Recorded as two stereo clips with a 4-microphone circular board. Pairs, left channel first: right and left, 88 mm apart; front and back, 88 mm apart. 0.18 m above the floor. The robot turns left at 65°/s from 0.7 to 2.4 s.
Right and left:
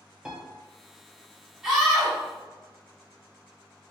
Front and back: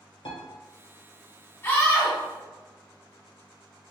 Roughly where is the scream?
Ahead.